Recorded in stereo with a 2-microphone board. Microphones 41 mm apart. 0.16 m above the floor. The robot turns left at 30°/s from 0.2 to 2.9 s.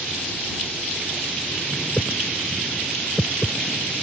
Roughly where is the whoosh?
Left.